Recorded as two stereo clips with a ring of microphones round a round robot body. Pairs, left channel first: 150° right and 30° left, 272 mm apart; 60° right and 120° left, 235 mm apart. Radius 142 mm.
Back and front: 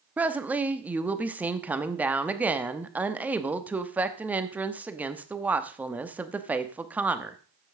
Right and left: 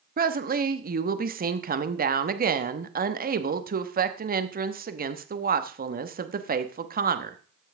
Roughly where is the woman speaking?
Left.